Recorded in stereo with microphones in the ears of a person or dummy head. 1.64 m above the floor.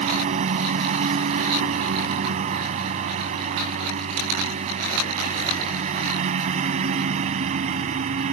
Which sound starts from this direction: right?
A lawn mower, at 0.0 s.